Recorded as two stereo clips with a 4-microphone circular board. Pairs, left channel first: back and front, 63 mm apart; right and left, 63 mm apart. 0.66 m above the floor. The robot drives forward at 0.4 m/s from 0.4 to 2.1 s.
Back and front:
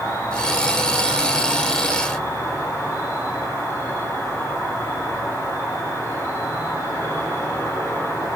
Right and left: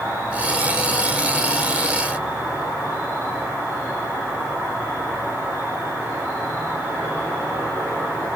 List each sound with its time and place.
0.0 s an insect: 145° left, 6.5 m